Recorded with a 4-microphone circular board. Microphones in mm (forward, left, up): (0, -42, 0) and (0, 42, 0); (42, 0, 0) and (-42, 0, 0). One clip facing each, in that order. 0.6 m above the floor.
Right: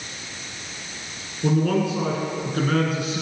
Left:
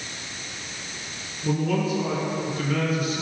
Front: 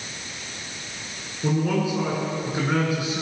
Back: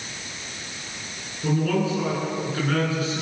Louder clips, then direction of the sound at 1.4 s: Right 3 dB, even; 70° right.